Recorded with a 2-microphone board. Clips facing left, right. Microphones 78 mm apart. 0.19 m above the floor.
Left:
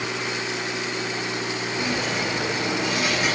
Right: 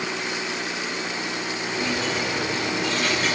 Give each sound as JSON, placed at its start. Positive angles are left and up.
{"t": 1.7, "sound": "a dropped coin", "side_deg": 10, "distance_m": 6.0}